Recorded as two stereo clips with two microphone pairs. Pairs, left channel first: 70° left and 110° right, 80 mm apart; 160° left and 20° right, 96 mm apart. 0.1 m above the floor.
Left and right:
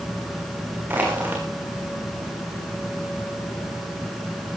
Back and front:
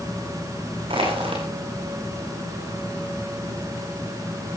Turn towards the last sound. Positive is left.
turn(degrees=-45)